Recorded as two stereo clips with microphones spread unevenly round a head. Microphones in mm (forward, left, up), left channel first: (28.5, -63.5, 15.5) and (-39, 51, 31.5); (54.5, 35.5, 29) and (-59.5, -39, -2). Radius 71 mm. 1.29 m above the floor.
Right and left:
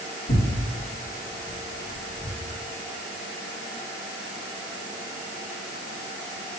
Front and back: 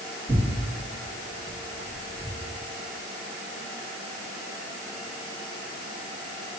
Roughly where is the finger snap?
No finger snap in this recording.